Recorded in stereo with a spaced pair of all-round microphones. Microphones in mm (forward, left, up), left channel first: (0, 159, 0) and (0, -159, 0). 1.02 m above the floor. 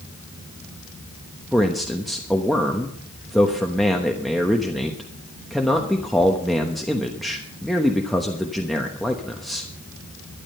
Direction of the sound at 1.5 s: Centre (ahead or behind).